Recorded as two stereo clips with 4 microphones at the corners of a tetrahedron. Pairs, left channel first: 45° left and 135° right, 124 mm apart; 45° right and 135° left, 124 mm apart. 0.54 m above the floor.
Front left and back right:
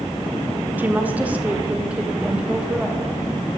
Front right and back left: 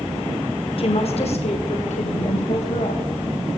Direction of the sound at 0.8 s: 65° right.